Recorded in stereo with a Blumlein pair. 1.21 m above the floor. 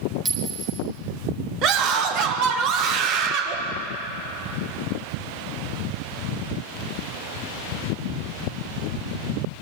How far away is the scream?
About 1.5 m.